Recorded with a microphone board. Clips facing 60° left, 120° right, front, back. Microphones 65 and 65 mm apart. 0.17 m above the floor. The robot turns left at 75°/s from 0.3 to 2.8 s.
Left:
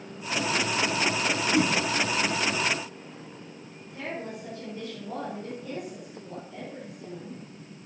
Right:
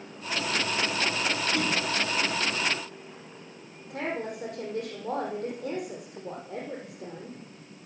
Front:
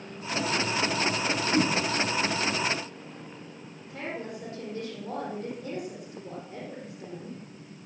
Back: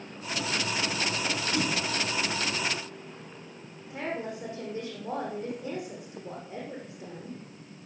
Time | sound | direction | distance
1.5 | a whoosh | 5° left | 1.4 m
3.9 | a woman speaking | 110° right | 7.5 m